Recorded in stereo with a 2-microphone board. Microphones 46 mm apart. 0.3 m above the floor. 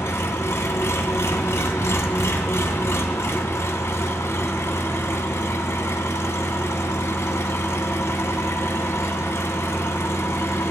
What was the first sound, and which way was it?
An engine running, 75° left (ahead or behind).